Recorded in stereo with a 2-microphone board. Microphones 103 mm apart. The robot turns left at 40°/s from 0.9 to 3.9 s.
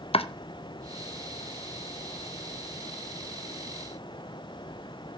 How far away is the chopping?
About 0.9 m.